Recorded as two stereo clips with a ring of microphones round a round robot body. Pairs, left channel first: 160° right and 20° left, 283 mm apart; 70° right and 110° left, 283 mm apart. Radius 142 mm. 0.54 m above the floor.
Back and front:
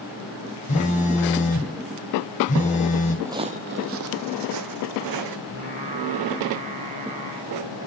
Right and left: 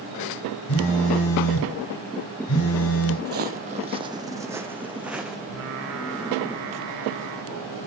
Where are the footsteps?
100° left, 0.6 m; by 5.4 s 25° left, 1.6 m.